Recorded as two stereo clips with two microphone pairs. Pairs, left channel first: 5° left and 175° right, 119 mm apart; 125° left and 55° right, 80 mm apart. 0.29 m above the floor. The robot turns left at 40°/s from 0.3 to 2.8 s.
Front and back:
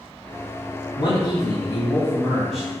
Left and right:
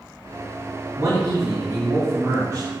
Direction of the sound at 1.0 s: 20° right.